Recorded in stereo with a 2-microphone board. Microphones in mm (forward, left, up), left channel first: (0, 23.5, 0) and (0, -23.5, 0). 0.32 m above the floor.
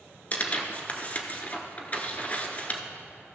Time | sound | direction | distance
0.3 | tearing paper | 30° left (ahead or behind) | 1.0 m